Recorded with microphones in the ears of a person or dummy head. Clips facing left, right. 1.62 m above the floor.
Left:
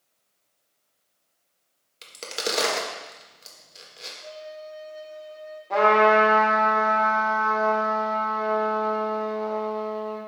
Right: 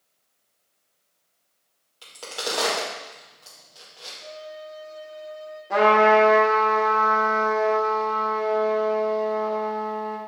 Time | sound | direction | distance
2.0 | a crack | 35° left (ahead or behind) | 1.4 m
4.2 | a violin | 55° right (ahead or behind) | 3 m
5.7 | a trumpet | 10° right (ahead or behind) | 1.4 m